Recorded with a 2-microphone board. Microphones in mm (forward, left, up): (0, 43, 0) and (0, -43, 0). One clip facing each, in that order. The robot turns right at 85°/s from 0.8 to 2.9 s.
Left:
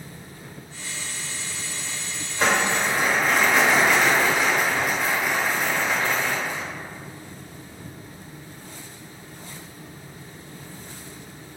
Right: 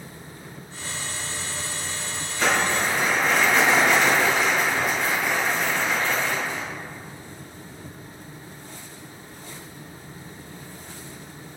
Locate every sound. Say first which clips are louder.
2.4 s crumpling: left 1 dB; 130° left, 0.9 m; by 6.6 s 175° left, 0.9 m